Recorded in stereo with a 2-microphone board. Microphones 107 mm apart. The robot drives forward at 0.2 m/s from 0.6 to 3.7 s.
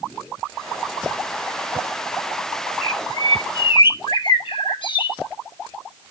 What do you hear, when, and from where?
2.8 s a bird: 50° left (ahead or behind), 0.5 m